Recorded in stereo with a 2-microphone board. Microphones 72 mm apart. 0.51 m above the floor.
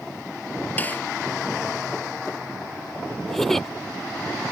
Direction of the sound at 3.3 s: 5° left (ahead or behind).